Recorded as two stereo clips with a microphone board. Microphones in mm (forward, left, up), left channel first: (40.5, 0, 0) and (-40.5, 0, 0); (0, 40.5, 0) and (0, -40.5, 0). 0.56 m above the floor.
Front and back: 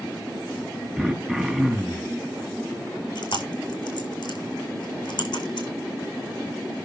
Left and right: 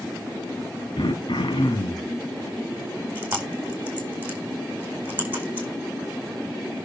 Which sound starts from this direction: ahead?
Chewing, at 3.1 s.